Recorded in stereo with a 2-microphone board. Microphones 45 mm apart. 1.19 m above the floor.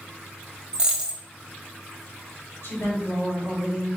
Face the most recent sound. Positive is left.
turn(degrees=85)